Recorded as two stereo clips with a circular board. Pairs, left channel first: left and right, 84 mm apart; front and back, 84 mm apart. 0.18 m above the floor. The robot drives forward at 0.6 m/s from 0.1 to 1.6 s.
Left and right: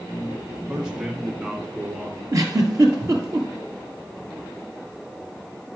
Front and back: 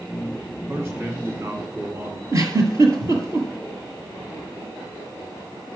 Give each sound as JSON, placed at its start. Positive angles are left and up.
{"t": 0.7, "sound": "a man speaking", "azimuth_deg": -165, "distance_m": 1.5}
{"t": 2.3, "sound": "a giggle", "azimuth_deg": -140, "distance_m": 1.7}